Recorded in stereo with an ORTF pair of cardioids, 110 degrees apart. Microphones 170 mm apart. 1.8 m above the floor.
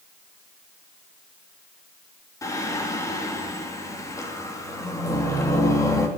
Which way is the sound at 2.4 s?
15° left.